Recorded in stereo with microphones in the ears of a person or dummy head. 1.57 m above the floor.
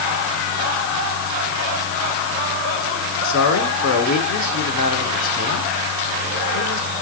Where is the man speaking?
70° left (ahead or behind), 4 m.